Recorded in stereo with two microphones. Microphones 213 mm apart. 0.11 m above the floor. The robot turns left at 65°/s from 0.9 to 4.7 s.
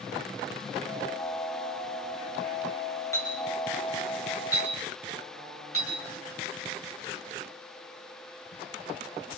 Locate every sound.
3.1 s a clink: 15° left (ahead or behind), 6 m; by 5.9 s 80° right, 6 m